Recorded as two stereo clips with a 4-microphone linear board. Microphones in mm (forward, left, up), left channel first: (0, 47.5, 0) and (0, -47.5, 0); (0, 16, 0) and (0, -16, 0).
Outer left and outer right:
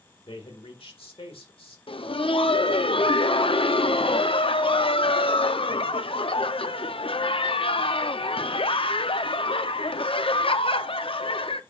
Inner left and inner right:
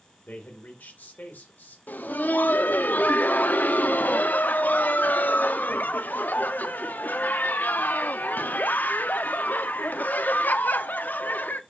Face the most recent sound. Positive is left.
turn(degrees=75)  # may be behind; listen again after turning